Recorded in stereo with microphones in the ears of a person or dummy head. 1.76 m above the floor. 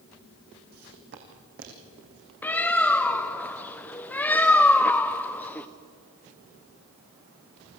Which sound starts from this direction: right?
Footsteps, at 0.7 s.